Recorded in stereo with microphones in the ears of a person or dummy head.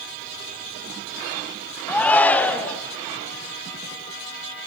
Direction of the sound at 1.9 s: 10° left (ahead or behind).